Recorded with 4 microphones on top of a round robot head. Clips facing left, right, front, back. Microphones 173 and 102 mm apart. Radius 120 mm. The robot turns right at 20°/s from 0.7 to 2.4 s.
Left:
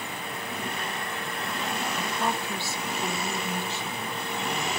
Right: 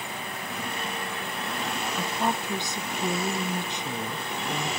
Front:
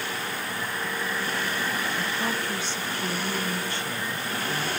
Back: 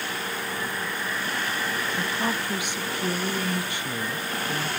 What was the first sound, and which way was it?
A woman speaking, 140° right.